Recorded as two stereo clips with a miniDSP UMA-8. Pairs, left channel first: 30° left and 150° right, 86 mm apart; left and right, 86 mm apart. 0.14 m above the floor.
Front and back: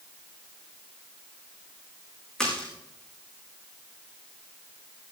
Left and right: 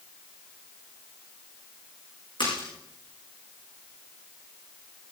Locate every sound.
2.4 s a splash: 110° left, 6 m